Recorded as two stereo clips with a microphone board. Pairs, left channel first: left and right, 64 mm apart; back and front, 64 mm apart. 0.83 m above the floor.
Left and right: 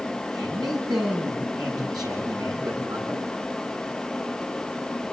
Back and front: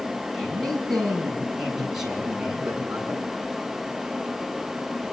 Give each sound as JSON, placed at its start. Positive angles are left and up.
{"t": 0.3, "sound": "a man speaking", "azimuth_deg": -90, "distance_m": 8.0}